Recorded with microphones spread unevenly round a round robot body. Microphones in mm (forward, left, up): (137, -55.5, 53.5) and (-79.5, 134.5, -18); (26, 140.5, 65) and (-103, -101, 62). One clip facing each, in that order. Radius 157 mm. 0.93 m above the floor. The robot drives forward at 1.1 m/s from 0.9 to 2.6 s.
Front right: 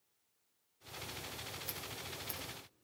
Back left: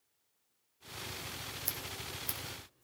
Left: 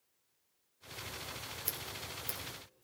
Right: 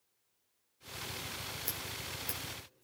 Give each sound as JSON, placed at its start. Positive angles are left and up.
{"t": 1.6, "sound": "scissors", "azimuth_deg": 140, "distance_m": 2.5}